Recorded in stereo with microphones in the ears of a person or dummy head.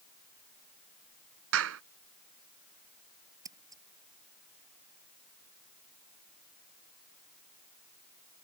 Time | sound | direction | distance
1.5 | a clap | 85° right | ?
3.5 | scissors | 10° right (ahead or behind) | ?